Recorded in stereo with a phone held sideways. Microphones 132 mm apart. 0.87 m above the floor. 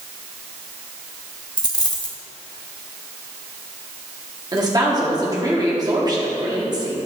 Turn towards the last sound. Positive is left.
turn(degrees=-30)  # may be behind; listen again after turning